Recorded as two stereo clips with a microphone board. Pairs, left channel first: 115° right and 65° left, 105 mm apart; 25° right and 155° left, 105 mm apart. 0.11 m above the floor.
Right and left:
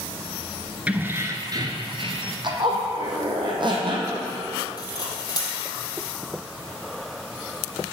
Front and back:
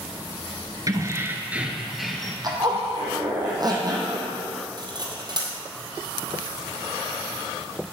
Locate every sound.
0.9 s keys jangling: 135° left, 1.2 m; by 2.3 s 60° left, 1.8 m
2.4 s a zipper: 110° left, 2.5 m
4.8 s cutlery clinking: 160° right, 2.5 m